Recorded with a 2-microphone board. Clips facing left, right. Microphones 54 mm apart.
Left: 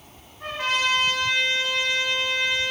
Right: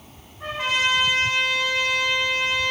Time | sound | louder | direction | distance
0.4 | a trumpet | right 1 dB | centre (ahead or behind) | 3 m